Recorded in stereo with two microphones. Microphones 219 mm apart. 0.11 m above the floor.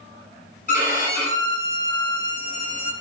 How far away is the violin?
About 0.7 m.